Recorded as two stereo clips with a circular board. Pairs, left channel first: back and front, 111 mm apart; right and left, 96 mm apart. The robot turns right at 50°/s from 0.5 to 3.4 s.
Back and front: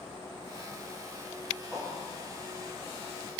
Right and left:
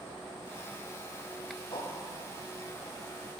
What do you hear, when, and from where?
1.7 s a whoosh: 90° right, 2.5 m; by 1.9 s 80° right, 2.5 m